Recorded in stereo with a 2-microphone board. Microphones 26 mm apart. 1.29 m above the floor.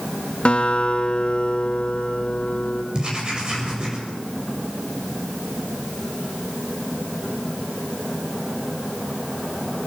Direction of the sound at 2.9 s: 35° right (ahead or behind).